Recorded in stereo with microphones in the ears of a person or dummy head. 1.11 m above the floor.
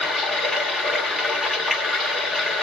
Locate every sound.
0.0 s running water: centre (ahead or behind), 1.7 m